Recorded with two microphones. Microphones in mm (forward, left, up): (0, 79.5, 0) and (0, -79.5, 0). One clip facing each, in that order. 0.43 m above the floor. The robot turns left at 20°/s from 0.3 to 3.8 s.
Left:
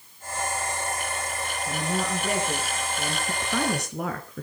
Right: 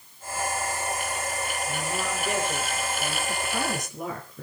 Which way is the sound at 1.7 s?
120° left.